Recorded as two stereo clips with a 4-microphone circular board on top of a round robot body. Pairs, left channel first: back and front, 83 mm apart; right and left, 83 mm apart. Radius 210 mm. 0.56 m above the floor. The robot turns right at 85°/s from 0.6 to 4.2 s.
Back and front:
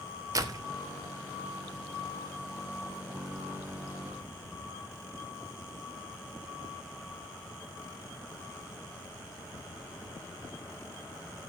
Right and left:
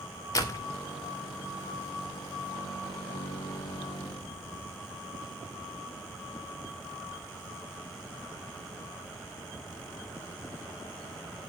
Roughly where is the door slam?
Ahead right.